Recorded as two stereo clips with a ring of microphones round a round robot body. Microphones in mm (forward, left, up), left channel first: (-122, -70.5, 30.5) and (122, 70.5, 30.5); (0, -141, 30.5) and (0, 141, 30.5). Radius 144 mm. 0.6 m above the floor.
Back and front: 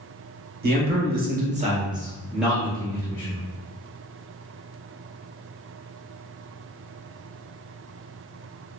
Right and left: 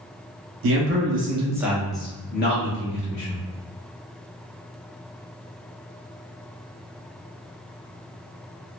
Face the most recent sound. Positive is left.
turn(degrees=-70)